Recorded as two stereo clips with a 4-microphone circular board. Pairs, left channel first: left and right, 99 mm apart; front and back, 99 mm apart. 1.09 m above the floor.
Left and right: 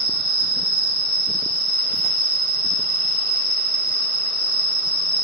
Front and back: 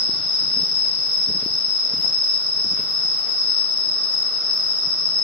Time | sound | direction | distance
0.0 | an insect | 85° right | 1.4 m